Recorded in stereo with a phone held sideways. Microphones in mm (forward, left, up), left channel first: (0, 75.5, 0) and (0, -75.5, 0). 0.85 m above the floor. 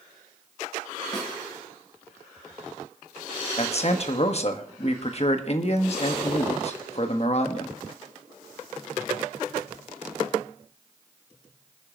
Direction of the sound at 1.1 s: 35° left (ahead or behind).